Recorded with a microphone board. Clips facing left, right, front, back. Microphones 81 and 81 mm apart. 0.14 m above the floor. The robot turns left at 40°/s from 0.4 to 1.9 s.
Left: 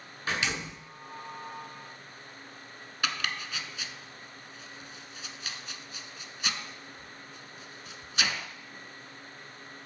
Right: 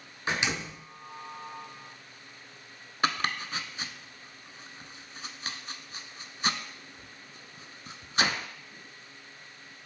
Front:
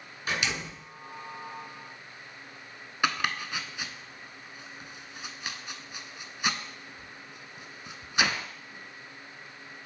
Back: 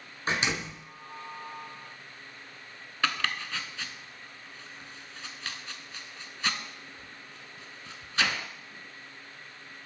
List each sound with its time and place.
0.3 s a door slam: 145° right, 1.3 m; by 0.8 s 165° right, 1.3 m
3.0 s chopping: 70° right, 0.5 m